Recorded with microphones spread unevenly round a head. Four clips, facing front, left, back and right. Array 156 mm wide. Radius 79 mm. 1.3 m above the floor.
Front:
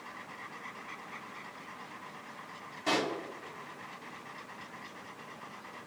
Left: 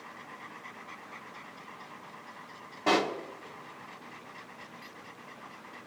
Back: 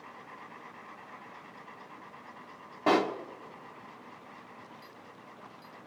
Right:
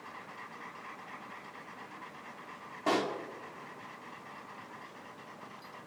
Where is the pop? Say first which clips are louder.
Left 4 dB, back 6 dB; 175° left, 1.3 m.